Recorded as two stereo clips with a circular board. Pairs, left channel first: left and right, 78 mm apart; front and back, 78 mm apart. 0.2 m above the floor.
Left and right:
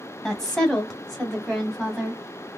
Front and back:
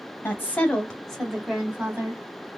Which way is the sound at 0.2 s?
15° left.